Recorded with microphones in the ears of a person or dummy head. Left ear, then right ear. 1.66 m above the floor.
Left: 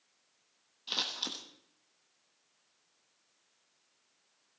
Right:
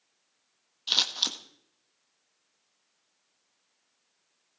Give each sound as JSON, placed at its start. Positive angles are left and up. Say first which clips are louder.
{"t": 0.9, "sound": "scissors", "louder": "right 9 dB", "side_deg": -35, "distance_m": 1.4}